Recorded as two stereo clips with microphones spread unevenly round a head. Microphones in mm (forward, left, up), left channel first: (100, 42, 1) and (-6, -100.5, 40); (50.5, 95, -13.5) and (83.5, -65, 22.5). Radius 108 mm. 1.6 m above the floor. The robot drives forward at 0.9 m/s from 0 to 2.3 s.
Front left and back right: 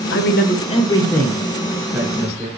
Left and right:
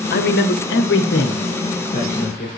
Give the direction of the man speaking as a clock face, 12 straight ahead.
9 o'clock.